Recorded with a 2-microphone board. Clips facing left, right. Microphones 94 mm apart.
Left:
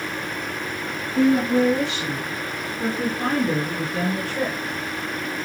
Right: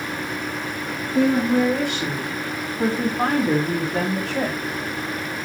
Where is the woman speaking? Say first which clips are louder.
Even; 55° right (ahead or behind), 6.5 m; by 4.8 s 65° right (ahead or behind), 3.5 m.